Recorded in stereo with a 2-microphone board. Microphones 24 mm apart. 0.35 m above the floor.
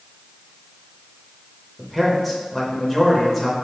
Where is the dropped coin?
No dropped coin in this recording.